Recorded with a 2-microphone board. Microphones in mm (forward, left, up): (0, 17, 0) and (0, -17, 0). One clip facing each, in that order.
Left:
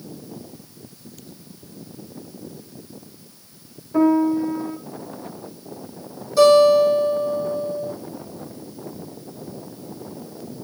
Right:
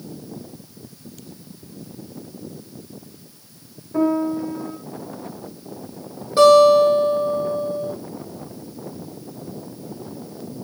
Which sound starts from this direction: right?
A guitar, at 6.4 s.